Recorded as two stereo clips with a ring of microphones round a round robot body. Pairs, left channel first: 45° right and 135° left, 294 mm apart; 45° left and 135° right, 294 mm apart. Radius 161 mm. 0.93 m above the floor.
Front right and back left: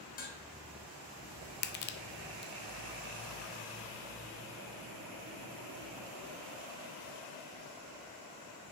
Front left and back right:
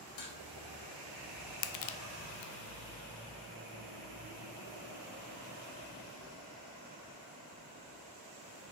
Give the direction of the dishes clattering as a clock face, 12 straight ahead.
11 o'clock.